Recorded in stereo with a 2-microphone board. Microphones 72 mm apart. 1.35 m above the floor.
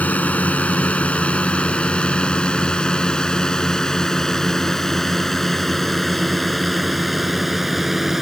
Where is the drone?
20° left (ahead or behind); by 8.2 s 5° right (ahead or behind).